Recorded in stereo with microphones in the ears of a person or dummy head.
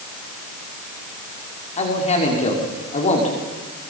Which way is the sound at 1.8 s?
35° left (ahead or behind).